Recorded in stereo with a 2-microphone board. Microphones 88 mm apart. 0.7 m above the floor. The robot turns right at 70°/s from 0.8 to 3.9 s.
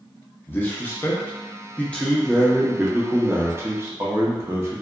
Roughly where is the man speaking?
Left.